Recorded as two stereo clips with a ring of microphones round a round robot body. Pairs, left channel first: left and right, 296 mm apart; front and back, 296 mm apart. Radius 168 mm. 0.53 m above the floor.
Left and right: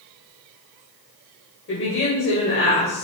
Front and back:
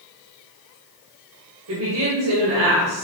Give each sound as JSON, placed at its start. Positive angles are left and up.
{"t": 1.7, "sound": "a woman speaking", "azimuth_deg": 135, "distance_m": 2.5}